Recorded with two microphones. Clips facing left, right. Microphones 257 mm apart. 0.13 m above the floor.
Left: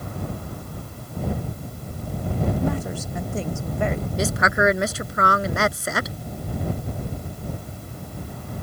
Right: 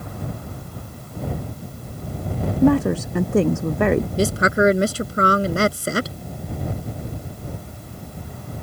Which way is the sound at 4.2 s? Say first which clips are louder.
Right 5 dB; 30° right (ahead or behind).